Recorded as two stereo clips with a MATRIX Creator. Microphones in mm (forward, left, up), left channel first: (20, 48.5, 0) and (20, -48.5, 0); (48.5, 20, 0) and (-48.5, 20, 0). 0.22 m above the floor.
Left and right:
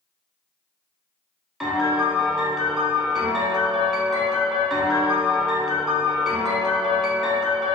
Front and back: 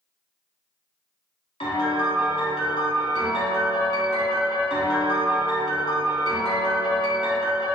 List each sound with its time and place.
1.6 s a piano: 5° right, 0.6 m